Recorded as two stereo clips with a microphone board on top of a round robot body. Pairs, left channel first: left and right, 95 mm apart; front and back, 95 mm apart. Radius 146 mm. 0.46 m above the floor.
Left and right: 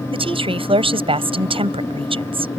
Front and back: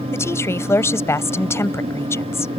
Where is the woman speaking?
65° right.